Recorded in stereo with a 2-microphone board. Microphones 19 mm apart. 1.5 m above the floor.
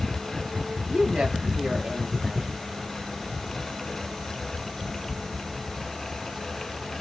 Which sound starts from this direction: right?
A woman speaking, at 0.9 s.